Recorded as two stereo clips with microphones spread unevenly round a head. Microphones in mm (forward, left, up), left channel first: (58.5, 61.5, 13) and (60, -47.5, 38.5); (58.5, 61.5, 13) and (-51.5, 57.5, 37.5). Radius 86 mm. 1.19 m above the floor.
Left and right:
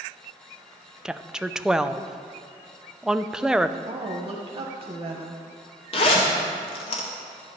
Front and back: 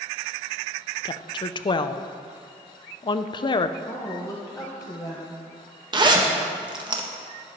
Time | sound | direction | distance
1.1 | a woman speaking | 5° left | 0.5 m
3.9 | a woman speaking | 50° right | 1.2 m
5.9 | a zipper | 130° left | 1.5 m